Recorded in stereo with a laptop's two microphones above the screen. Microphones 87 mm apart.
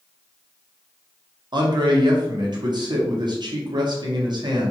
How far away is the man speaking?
About 0.9 m.